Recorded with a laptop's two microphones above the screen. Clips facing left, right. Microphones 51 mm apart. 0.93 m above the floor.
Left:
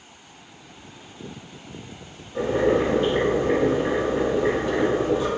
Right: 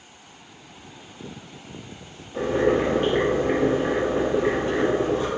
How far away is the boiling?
About 1.0 m.